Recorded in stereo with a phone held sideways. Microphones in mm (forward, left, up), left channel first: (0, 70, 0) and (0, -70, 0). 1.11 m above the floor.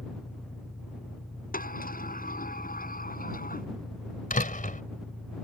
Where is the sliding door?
80° left.